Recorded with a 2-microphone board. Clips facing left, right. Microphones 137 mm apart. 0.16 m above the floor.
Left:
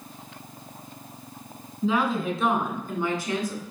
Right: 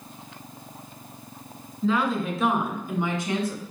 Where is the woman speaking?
10° left (ahead or behind), 2.0 m; by 3.6 s 30° right (ahead or behind), 1.9 m.